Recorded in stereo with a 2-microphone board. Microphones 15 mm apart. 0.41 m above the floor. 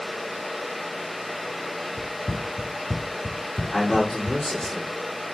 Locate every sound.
2.0 s running footsteps: centre (ahead or behind), 0.6 m; by 4.7 s 60° left (ahead or behind), 1.2 m
3.7 s a man speaking: 55° left (ahead or behind), 4 m